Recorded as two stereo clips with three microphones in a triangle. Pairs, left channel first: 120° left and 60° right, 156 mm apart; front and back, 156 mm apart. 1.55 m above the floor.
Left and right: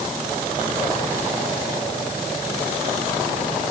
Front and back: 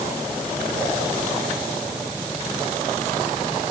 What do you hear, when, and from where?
Only background noise.